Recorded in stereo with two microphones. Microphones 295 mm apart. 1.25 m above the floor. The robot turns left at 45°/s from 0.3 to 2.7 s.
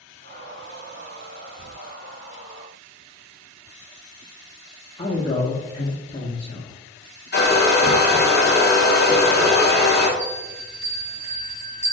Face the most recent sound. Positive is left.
turn(degrees=25)  # may be behind; listen again after turning